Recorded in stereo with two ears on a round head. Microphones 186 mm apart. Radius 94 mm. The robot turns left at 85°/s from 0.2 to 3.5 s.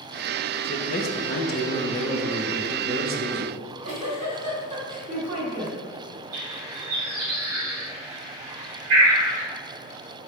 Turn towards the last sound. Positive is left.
turn(degrees=-75)  # may be behind; listen again after turning